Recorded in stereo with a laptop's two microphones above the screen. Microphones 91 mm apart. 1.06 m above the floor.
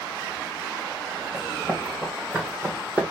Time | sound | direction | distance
1.3 | running footsteps | 10° right (ahead or behind) | 3 m